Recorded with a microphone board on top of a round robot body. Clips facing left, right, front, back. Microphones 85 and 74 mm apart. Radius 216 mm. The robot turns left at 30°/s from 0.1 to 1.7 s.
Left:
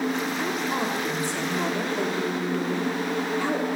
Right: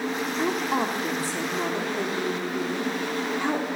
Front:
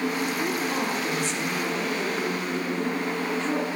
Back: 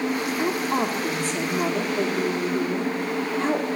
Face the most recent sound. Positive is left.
turn(degrees=-155)